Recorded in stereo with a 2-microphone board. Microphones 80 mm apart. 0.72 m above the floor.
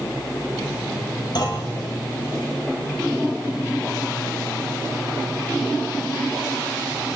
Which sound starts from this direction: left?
A clunk, at 1.4 s.